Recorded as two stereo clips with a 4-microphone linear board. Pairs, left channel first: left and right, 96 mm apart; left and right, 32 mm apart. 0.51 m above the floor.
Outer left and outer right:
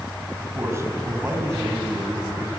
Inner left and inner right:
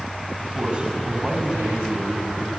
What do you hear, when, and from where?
0.4 s a man speaking: 30° right (ahead or behind), 3.5 m